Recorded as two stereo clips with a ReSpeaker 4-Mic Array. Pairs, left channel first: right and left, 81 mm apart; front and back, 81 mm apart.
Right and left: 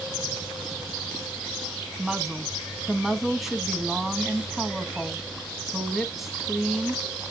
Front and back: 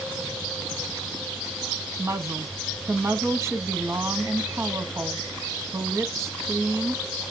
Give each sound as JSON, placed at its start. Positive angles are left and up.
{"t": 2.0, "sound": "a woman speaking", "azimuth_deg": 175, "distance_m": 1.1}